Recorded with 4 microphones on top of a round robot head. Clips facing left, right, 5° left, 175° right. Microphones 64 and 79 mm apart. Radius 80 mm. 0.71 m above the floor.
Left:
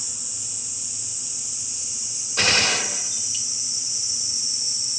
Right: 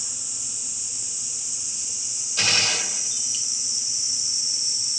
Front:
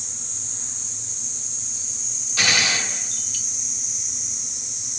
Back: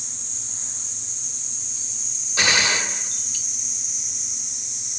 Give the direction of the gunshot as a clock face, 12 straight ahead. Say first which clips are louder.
Left 4 dB, back 2 dB; 8 o'clock.